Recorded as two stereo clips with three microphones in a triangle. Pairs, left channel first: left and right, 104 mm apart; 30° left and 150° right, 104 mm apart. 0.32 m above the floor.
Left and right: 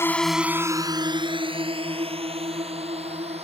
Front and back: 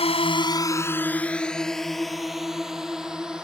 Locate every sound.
0.0 s a drone: 25° left; by 3.4 s 70° right